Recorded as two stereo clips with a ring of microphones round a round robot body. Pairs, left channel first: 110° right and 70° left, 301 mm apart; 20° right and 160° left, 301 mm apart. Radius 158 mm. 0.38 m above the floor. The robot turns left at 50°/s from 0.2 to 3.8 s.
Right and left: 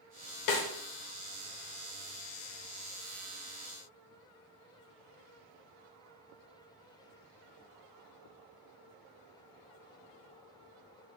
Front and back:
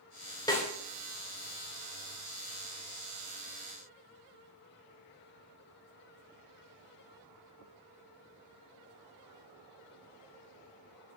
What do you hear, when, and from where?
0.5 s a snare drum: 100° right, 0.6 m; by 0.7 s 110° right, 0.6 m